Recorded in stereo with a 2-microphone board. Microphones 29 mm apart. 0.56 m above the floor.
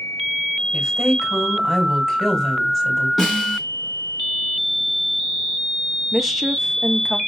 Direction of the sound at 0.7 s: 5° left (ahead or behind).